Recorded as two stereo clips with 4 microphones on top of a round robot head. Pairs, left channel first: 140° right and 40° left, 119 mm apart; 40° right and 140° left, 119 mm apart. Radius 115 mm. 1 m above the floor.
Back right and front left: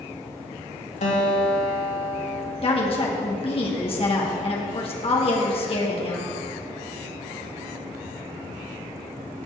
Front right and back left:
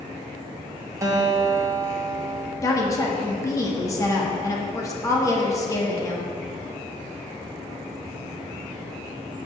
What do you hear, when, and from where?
1.0 s a guitar: 155° right, 2 m
2.6 s a woman speaking: 100° right, 1.8 m